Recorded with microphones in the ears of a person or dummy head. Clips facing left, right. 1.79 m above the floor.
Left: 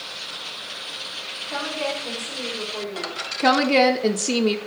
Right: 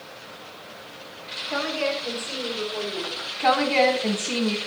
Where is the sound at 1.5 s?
30° right (ahead or behind), 1.8 m; by 3.2 s 5° left (ahead or behind), 3 m.